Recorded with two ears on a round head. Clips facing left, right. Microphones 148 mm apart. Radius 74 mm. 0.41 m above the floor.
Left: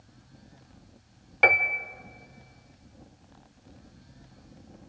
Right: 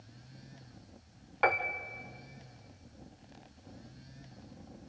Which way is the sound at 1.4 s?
30° left (ahead or behind).